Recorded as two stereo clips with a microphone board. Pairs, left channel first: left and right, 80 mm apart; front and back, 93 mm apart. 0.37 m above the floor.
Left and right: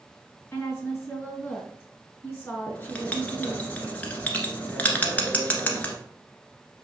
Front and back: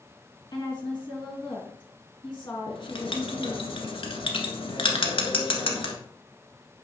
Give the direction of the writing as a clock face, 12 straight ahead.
11 o'clock.